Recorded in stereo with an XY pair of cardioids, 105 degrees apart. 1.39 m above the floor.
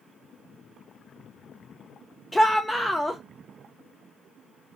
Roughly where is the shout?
Ahead.